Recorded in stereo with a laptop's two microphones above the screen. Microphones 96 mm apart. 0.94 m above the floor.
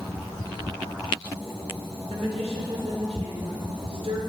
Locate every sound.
2.1 s a woman speaking: 75° right (ahead or behind), 3 m; by 4.2 s 70° right (ahead or behind), 3.5 m